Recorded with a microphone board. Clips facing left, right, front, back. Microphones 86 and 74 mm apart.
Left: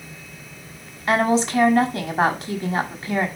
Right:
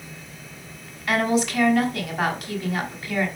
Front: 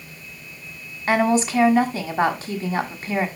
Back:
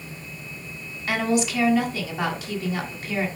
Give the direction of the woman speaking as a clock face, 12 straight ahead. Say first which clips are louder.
Left 3 dB, front 4 dB; 11 o'clock.